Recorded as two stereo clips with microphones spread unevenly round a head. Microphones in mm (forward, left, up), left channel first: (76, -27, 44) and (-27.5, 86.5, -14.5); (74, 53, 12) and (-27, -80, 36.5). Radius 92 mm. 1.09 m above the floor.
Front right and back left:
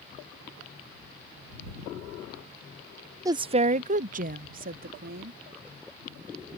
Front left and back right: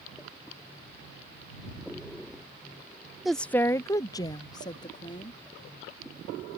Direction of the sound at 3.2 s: 135° left.